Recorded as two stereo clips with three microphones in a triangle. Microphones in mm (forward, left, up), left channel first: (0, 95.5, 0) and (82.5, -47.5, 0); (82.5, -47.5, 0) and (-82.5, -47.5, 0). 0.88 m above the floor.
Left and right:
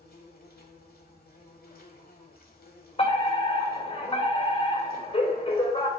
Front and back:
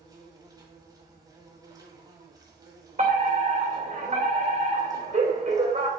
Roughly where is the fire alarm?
Behind.